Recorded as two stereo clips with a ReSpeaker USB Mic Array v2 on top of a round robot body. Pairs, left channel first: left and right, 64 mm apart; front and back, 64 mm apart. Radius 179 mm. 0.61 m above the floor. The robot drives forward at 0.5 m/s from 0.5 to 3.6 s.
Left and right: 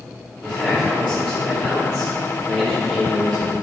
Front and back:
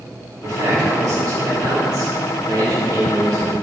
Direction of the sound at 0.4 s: Straight behind.